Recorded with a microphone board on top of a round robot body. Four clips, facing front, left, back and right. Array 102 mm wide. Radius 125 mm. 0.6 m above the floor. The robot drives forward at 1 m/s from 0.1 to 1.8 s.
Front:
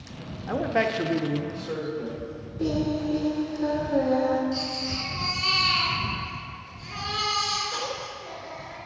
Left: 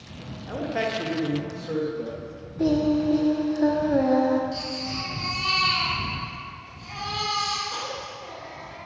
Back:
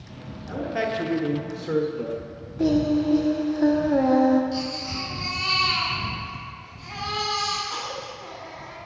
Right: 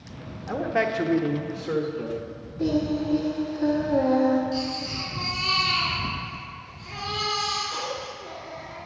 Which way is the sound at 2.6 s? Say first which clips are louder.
Left 3 dB, back 5 dB; 150° left.